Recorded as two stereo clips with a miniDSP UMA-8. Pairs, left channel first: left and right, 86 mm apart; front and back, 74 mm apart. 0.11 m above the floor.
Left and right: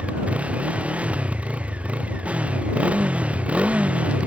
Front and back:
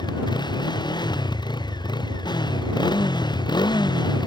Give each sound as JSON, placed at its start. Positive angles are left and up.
{"t": 0.0, "sound": "a motorcycle", "azimuth_deg": -15}